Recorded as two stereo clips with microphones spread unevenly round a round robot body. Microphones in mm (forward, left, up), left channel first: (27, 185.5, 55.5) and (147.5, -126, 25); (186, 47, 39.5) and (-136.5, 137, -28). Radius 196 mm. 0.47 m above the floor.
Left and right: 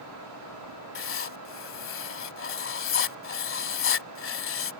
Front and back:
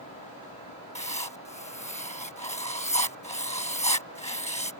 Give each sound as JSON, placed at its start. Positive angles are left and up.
{"t": 0.9, "sound": "writing", "azimuth_deg": 60}